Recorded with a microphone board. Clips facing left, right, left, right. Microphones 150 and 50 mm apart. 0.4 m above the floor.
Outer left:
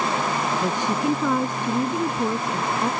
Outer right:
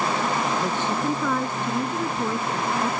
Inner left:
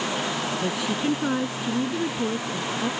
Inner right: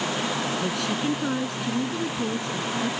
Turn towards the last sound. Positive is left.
turn(degrees=15)  # may be behind; listen again after turning